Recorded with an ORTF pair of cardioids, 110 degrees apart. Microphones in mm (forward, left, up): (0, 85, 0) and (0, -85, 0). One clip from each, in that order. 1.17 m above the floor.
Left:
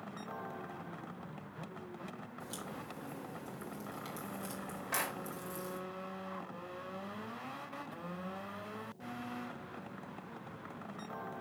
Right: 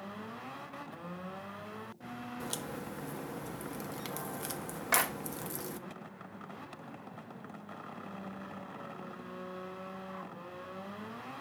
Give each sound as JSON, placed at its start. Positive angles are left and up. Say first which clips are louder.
{"t": 2.4, "sound": "a crack", "louder": "right 4 dB", "azimuth_deg": -55, "distance_m": 1.4}
{"t": 4.9, "sound": "a clap", "louder": "right 7 dB", "azimuth_deg": -60, "distance_m": 2.0}